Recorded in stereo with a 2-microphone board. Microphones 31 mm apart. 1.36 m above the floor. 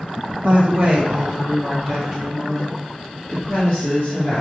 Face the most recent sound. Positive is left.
turn(degrees=30)  # may be behind; listen again after turning